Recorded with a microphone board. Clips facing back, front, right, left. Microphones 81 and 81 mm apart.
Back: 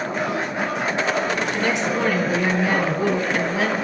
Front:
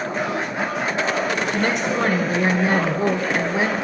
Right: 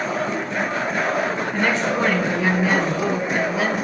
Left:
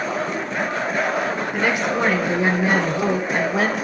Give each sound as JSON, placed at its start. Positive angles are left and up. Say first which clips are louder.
{"t": 1.5, "sound": "a woman speaking", "louder": "front 1 dB, even", "azimuth_deg": 10, "distance_m": 1.5}